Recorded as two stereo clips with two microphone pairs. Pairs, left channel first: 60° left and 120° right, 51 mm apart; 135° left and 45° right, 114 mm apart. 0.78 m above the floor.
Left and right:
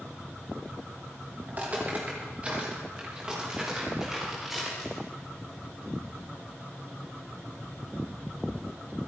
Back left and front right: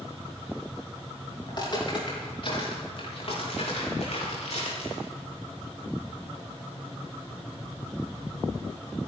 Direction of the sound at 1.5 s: 175° right.